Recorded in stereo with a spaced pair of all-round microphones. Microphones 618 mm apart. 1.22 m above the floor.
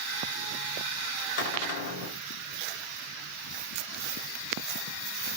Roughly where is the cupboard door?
Left.